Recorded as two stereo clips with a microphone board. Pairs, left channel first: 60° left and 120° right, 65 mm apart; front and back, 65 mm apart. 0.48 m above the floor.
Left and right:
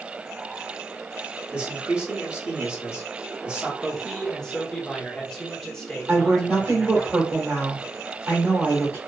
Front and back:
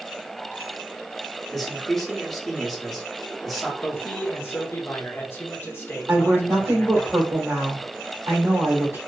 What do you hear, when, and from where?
1.5 s a man speaking: 75° right, 1.0 m
3.8 s a man speaking: 15° right, 1.0 m
6.1 s a woman speaking: 160° right, 1.3 m